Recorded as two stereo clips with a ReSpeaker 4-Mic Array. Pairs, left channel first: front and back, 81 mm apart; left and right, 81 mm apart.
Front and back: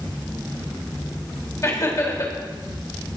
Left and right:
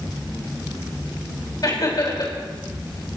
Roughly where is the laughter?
Ahead left.